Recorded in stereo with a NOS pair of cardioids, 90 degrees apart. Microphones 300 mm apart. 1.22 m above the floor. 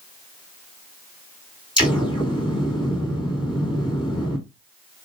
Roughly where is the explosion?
Ahead.